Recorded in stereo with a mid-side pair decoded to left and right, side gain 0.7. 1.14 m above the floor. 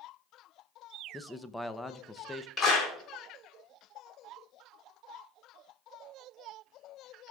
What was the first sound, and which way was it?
A man speaking, 10° left.